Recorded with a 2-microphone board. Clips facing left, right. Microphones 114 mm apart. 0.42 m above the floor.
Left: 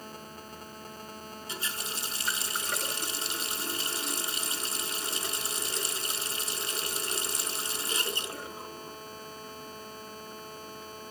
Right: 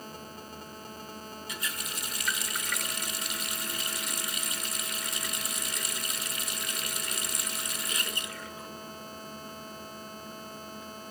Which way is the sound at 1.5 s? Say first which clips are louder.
Left 2 dB; 30° left (ahead or behind).